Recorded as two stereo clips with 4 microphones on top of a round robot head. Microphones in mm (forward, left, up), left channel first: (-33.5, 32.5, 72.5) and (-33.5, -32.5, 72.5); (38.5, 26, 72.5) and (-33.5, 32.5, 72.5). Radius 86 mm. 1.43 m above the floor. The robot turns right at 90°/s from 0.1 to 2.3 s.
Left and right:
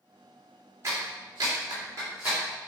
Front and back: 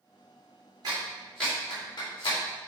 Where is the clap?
140° right, 3 m; by 2.4 s 10° right, 3 m.